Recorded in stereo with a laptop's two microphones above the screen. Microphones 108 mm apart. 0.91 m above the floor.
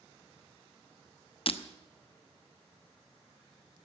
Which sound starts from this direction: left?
Breaking glass, at 1.5 s.